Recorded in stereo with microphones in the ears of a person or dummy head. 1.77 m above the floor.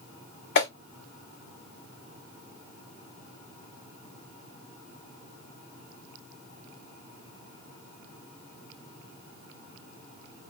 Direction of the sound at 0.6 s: 70° left (ahead or behind).